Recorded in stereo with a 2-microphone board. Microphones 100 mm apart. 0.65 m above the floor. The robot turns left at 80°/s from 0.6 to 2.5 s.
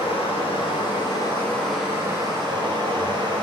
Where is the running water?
90° left, 1.2 m; by 3.4 s 65° right, 1.2 m.